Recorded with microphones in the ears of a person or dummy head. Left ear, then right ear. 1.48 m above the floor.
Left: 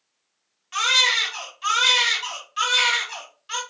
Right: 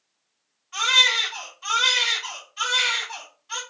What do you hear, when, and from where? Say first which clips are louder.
0.7 s a baby crying: right 1 dB; 50° left (ahead or behind), 1.1 m